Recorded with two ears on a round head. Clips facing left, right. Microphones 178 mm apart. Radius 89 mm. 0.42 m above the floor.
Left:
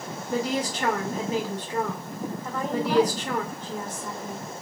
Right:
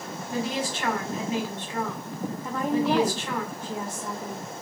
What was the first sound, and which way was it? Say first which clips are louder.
A woman speaking: left 2 dB; 35° left (ahead or behind).